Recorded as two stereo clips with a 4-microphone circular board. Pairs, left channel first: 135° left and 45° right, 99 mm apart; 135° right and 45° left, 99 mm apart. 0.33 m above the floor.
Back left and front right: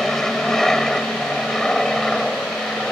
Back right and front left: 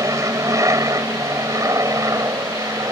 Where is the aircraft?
55° left.